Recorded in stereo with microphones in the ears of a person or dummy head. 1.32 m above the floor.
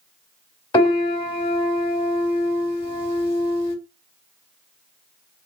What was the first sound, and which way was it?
A piano, 25° left (ahead or behind).